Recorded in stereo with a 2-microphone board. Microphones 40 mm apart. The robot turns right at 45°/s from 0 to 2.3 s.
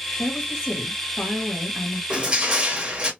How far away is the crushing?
About 1.0 m.